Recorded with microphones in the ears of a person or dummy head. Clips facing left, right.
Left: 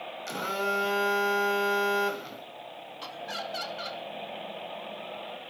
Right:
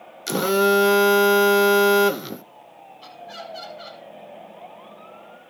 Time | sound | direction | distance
0.3 | a phone buzzing | 65° right (ahead or behind) | 0.6 m
3.0 | laughter | 80° left | 3 m